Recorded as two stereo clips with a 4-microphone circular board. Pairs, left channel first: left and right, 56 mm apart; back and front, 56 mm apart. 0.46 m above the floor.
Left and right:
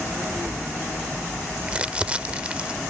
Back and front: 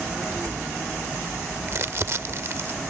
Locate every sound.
1.7 s crumpling: 25° right